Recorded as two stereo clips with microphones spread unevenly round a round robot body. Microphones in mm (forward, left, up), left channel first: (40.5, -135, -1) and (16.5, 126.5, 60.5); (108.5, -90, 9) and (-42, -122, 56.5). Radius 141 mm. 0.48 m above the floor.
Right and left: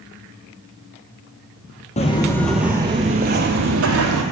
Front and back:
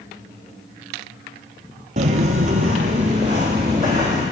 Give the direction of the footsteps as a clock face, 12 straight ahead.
5 o'clock.